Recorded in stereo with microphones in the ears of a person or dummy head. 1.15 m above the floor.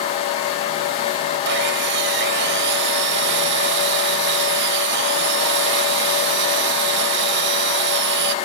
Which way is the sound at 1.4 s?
65° right (ahead or behind).